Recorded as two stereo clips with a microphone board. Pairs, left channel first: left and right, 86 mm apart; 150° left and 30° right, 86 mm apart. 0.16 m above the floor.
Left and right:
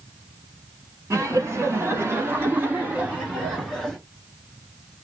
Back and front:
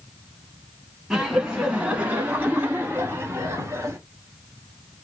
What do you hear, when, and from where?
1.1 s laughter: 110° right, 1.7 m; by 4.0 s 10° right, 1.5 m